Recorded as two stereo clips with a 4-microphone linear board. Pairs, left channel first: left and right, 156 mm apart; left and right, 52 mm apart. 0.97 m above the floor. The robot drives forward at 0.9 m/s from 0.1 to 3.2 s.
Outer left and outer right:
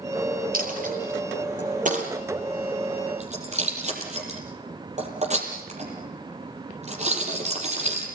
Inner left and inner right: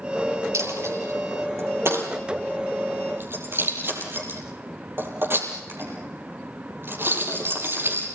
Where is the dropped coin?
70° right (ahead or behind), 4.5 m; by 8.1 s 50° right (ahead or behind), 5.5 m.